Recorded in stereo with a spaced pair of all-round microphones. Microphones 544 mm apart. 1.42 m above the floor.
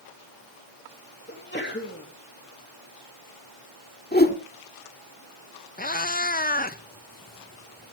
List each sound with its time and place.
1.3 s a sneeze: 20° left (ahead or behind), 2.5 m
4.1 s a whoosh: 20° left (ahead or behind), 1.7 m
5.8 s a cat meowing: 20° left (ahead or behind), 0.6 m